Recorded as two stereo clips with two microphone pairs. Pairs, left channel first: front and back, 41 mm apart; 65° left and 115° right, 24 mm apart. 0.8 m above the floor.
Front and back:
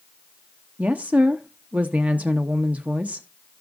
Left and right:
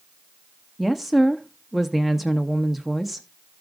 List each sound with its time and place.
0.8 s a woman speaking: 170° left, 0.6 m